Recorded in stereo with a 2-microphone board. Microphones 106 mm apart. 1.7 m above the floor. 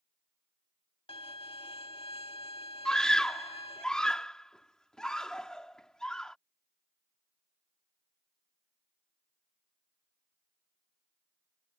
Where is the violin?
60° left (ahead or behind).